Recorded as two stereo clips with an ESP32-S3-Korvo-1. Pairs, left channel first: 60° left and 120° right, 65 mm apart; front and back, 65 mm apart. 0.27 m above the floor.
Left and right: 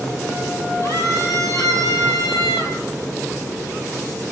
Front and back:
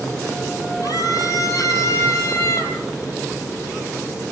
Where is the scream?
30° left, 7 m; by 2.8 s 50° left, 6 m.